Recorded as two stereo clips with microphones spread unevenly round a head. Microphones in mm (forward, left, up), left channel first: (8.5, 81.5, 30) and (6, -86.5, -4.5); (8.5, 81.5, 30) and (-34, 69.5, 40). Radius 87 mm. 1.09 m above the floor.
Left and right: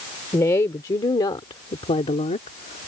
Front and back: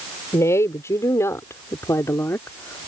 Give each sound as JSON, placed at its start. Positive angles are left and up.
{"t": 0.3, "sound": "a woman speaking", "azimuth_deg": 15}